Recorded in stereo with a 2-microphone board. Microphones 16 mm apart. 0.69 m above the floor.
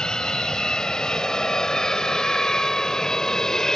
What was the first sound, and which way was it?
An aircraft, 45° left (ahead or behind).